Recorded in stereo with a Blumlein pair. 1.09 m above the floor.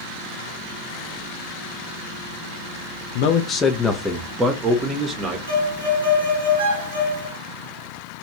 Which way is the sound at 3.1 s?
45° left.